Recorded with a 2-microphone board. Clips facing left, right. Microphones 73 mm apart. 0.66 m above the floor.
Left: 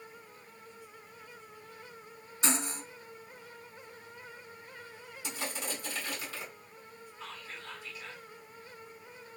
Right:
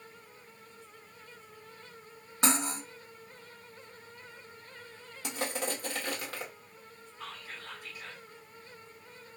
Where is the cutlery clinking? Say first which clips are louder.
Right 4 dB; 70° right (ahead or behind), 1.2 m.